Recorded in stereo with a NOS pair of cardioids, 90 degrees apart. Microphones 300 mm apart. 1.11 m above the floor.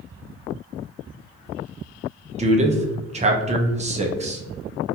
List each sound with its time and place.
2.4 s a man speaking: 25° right, 0.6 m